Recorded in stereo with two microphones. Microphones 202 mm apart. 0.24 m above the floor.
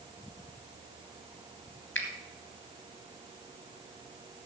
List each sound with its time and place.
1.9 s a finger snap: 70° left (ahead or behind), 2.5 m